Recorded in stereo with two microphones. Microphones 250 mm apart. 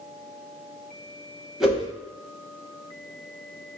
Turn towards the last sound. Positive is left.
turn(degrees=0)  # may be behind; listen again after turning